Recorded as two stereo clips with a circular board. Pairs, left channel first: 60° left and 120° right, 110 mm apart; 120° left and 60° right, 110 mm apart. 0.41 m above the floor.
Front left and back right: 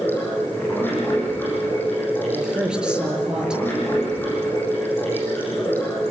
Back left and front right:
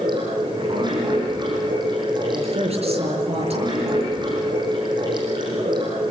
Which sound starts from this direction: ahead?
Running water, at 0.0 s.